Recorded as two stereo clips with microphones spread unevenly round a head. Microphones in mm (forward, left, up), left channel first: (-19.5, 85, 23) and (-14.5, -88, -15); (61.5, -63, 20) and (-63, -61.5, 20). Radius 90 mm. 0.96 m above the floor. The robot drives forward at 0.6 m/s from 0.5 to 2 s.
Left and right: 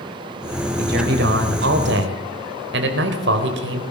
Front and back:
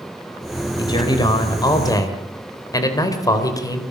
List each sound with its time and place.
0.8 s a man speaking: 55° right, 4 m; by 3.8 s 60° right, 4 m